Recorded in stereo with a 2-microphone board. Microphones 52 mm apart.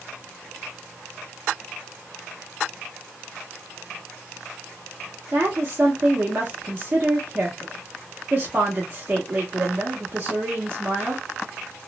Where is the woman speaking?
40° right (ahead or behind), 0.8 m.